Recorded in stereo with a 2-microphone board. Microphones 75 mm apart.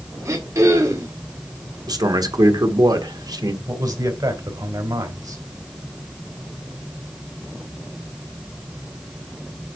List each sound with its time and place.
0.2 s throat clearing: 45° right (ahead or behind), 1.7 m
1.9 s a man speaking: 60° right (ahead or behind), 1.4 m
3.7 s a man speaking: 60° right (ahead or behind), 2.5 m